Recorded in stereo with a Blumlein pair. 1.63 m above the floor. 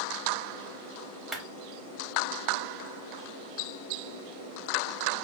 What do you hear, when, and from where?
1.3 s a clap: 15° right, 0.9 m